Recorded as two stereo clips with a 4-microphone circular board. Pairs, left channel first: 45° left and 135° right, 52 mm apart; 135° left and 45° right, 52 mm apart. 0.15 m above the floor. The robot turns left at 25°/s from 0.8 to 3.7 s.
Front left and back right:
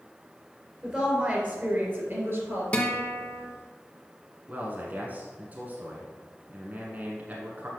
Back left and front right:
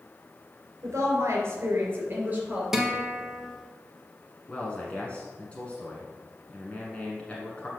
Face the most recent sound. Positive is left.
turn(degrees=-170)